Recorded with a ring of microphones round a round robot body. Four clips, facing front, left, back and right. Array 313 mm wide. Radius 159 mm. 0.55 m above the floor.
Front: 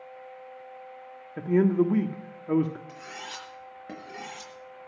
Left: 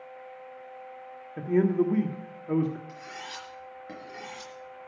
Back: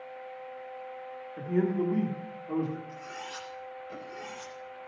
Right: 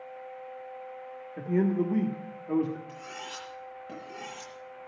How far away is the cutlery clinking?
About 6.5 m.